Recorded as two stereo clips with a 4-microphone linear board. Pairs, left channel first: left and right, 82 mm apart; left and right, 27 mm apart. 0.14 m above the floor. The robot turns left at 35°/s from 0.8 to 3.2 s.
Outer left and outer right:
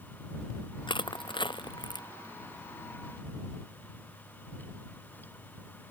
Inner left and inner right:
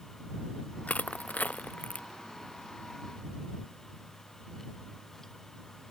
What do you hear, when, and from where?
0.9 s crushing: 80° left; by 2.1 s 60° left (ahead or behind)